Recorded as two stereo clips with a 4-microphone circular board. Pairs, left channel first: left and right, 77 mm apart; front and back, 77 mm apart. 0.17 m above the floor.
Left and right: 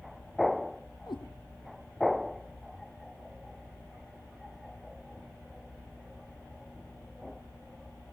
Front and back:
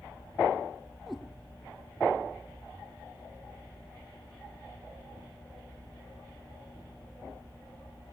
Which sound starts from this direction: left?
A cat meowing, at 1.1 s.